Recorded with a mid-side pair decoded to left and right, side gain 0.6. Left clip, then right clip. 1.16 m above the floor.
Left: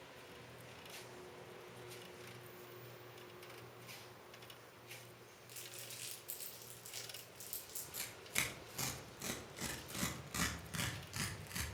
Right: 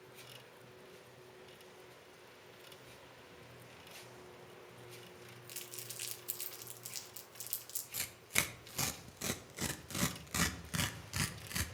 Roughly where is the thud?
No thud in this recording.